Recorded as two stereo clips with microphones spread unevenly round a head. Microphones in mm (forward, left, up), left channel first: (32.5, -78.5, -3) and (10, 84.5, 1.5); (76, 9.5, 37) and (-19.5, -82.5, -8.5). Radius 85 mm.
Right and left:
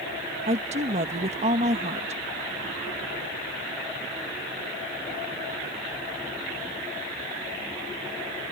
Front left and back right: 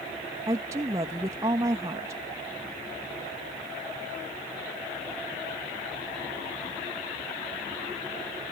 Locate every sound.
0.5 s a woman speaking: 155° left